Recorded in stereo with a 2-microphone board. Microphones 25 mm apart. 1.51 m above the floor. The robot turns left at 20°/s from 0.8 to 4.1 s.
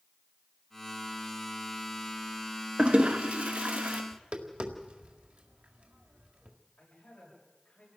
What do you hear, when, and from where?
2.8 s a toilet flushing: 50° right (ahead or behind), 1.3 m; by 4.0 s 70° right (ahead or behind), 1.3 m
4.1 s tapping: 50° right (ahead or behind), 1.8 m
6.8 s a man speaking: 65° left (ahead or behind), 7.5 m